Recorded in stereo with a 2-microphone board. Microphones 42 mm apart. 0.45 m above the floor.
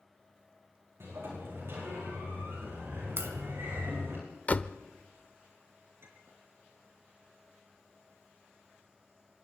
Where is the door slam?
35° left (ahead or behind), 0.7 m.